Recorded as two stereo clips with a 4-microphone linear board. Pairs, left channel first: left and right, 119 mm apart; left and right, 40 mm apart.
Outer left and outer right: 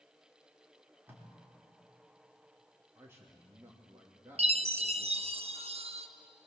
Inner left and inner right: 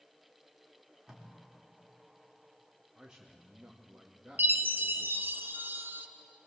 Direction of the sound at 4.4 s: 60° right (ahead or behind).